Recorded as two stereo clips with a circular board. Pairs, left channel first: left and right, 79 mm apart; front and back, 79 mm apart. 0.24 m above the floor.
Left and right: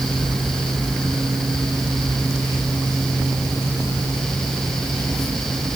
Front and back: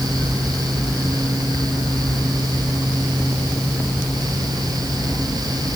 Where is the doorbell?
No doorbell in this recording.